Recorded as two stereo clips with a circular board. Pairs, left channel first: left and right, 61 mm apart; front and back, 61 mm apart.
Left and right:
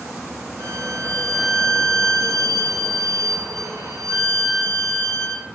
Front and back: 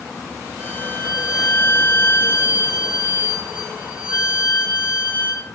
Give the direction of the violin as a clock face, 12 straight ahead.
4 o'clock.